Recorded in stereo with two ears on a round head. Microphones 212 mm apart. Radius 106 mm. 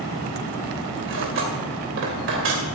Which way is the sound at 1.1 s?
55° right (ahead or behind).